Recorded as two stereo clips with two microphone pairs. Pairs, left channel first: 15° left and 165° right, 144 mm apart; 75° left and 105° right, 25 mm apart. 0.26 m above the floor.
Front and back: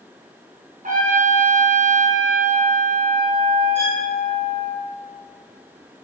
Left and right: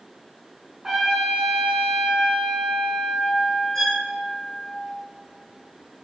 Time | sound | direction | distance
0.8 | a trumpet | straight behind | 3 m
3.8 | a violin | 150° left | 3.5 m